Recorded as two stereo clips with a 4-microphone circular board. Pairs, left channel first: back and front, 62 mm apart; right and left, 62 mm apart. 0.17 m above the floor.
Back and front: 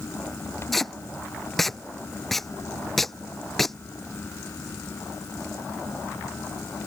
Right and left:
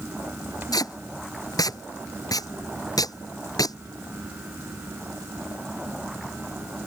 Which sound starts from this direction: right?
Tape being pulled, at 0.7 s.